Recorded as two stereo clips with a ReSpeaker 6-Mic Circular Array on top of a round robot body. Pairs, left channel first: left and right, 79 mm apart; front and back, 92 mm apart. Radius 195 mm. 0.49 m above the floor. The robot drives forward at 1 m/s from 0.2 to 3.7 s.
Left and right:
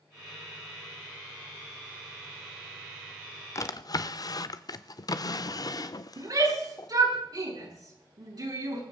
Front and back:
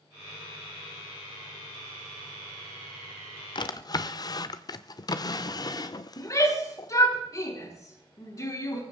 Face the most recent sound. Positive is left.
turn(degrees=-50)